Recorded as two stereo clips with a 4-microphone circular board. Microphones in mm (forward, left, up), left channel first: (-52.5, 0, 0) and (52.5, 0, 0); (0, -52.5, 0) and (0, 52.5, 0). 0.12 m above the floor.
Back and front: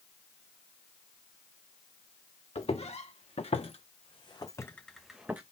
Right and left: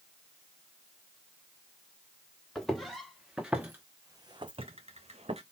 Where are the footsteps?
175° right, 1.3 m; by 5.4 s 70° left, 0.7 m.